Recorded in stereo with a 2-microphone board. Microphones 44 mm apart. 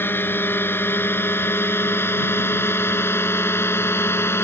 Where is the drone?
55° left (ahead or behind); by 4.4 s 65° left (ahead or behind).